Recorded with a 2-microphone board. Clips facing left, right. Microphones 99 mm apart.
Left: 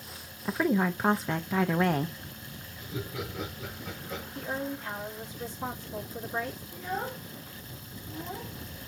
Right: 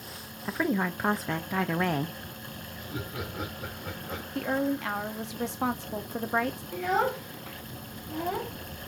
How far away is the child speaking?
About 0.5 m.